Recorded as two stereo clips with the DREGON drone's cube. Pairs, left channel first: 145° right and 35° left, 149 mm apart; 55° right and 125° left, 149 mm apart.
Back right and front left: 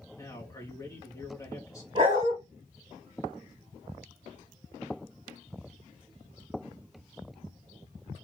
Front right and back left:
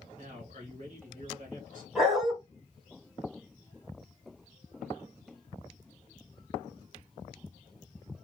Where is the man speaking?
145° left, 1.5 m.